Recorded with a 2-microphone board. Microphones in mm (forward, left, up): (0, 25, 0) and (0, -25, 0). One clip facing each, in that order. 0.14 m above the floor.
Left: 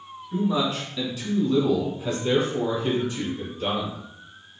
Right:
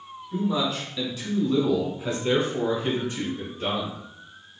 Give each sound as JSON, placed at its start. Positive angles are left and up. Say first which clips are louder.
{"t": 0.3, "sound": "a man speaking", "louder": "left 1 dB", "side_deg": 20, "distance_m": 1.5}